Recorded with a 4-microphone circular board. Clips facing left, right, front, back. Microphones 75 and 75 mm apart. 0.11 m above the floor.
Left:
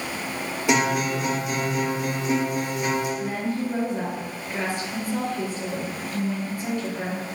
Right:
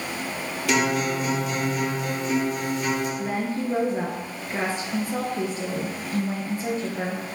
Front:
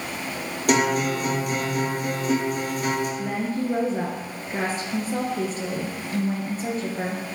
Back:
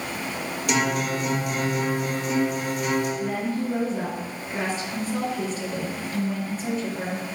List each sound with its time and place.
0.7 s a guitar: 25° left, 3 m
3.2 s a woman speaking: 30° right, 1.7 m